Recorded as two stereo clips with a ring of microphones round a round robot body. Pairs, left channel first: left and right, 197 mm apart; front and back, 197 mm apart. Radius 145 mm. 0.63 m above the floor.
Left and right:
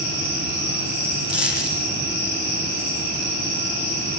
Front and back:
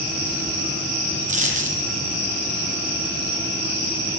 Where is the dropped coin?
125° left, 7.5 m.